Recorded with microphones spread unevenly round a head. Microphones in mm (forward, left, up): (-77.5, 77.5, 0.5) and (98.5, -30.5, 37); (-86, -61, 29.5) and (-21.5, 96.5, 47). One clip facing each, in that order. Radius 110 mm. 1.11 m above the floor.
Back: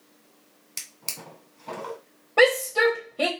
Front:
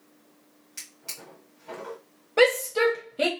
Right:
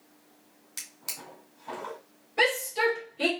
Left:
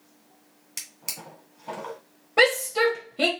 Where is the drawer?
130° left, 1.9 m.